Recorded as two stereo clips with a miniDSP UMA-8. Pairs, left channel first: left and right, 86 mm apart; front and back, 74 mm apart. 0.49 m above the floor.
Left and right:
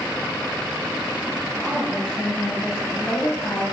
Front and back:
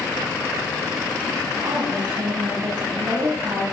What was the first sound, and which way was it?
A woman speaking, 175° left.